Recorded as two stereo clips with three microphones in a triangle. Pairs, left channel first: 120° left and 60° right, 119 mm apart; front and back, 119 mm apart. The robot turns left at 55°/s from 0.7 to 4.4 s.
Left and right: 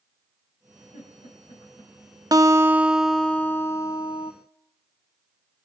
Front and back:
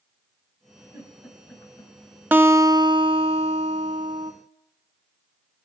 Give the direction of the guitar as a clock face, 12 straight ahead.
4 o'clock.